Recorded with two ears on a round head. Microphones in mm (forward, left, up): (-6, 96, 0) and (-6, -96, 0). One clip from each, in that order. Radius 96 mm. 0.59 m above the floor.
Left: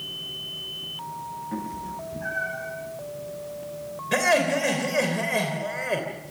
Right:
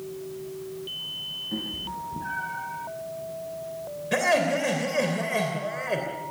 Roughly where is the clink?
No clink in this recording.